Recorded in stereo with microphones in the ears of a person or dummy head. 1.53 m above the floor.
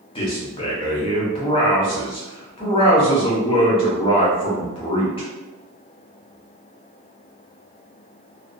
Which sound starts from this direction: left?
A man speaking, at 0.1 s.